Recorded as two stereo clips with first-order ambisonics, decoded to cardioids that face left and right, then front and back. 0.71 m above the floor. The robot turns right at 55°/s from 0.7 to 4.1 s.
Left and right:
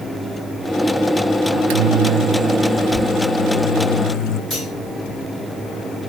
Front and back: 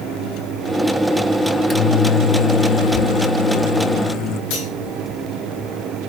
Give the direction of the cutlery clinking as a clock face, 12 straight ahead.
11 o'clock.